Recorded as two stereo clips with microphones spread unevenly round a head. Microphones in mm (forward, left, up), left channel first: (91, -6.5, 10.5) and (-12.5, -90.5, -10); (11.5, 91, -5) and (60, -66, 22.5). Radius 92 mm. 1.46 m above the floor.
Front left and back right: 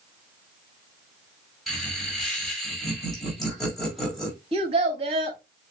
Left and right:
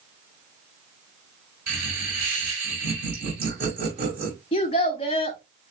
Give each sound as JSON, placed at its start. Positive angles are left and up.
{"t": 1.7, "sound": "laughter", "azimuth_deg": -50, "distance_m": 3.5}
{"t": 4.5, "sound": "a child speaking", "azimuth_deg": 165, "distance_m": 1.1}